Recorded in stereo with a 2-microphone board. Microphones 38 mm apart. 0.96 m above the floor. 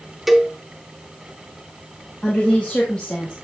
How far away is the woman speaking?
About 1.8 m.